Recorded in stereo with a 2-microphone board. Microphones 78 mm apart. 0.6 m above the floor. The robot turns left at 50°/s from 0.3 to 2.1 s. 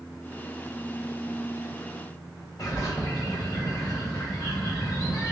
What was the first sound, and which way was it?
A bird, 55° left (ahead or behind).